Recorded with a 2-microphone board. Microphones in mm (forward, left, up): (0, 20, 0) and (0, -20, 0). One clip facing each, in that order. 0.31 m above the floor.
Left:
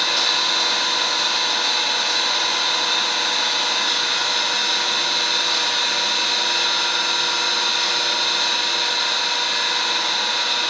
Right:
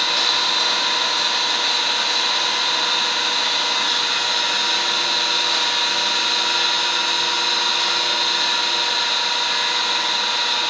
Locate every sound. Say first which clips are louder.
0.0 s an engine running: right 1 dB; 5° right (ahead or behind), 1.3 m